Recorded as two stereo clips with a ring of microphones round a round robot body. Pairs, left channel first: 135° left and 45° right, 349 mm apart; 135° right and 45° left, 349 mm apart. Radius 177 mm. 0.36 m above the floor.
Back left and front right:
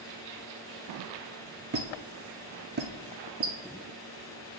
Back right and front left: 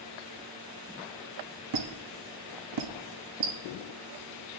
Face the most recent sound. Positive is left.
turn(degrees=15)